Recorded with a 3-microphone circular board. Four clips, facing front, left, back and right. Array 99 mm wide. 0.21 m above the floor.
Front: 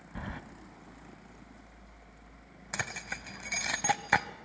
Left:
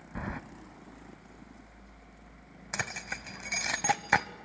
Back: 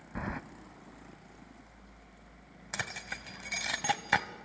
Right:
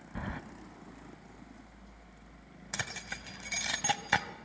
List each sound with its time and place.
0.1 s keys jangling: 150° left, 0.7 m
2.7 s keys jangling: 65° left, 0.9 m